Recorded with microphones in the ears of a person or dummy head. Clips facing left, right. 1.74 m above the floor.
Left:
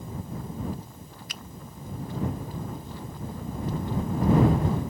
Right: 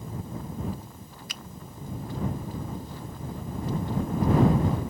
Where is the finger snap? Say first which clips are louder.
Even; 70° right (ahead or behind).